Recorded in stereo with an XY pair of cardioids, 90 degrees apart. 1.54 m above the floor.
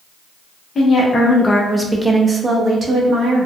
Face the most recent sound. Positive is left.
turn(degrees=-65)